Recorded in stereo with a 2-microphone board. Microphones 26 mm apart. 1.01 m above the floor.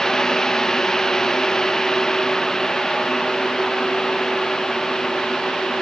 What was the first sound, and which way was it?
Only background noise.